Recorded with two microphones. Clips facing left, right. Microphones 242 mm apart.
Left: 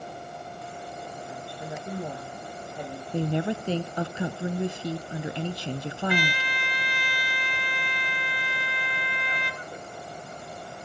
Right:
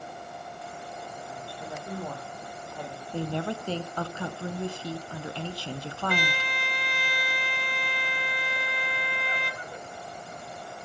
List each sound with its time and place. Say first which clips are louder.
1.3 s a woman speaking: left 2 dB; 20° left (ahead or behind), 9 m
3.1 s a woman speaking: left 4 dB; 20° left (ahead or behind), 1.1 m
6.1 s a trumpet: left 1 dB; 45° right (ahead or behind), 2.5 m